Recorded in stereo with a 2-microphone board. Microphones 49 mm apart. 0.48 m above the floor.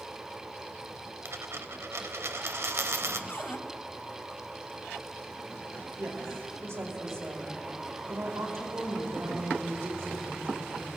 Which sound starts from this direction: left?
A cupboard door, at 3.3 s.